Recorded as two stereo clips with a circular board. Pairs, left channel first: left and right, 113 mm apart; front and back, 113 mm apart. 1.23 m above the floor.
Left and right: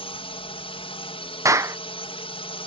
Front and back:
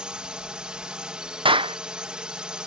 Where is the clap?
150° right.